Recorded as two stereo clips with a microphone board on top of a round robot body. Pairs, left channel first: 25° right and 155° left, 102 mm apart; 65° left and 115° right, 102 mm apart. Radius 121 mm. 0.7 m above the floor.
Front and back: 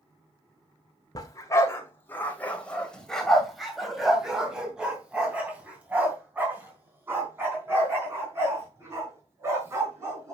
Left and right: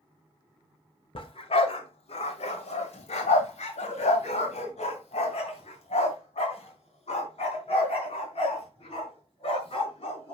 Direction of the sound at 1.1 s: 35° left.